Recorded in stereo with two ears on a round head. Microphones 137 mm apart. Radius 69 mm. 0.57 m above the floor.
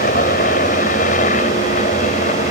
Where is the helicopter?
60° left (ahead or behind); by 2.5 s 50° left (ahead or behind).